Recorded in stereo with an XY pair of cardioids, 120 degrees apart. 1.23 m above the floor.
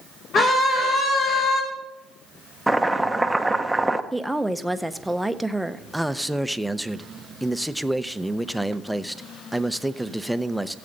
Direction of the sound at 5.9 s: 5° right.